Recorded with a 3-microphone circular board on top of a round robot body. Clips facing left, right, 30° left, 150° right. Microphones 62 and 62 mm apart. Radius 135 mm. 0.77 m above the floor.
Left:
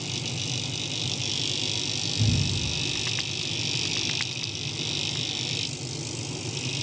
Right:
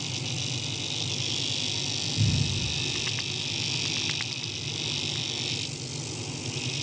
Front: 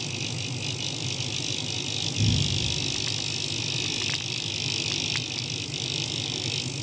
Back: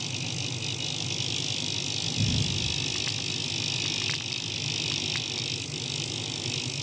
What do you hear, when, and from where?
2.2 s a cupboard door: 95° right, 2 m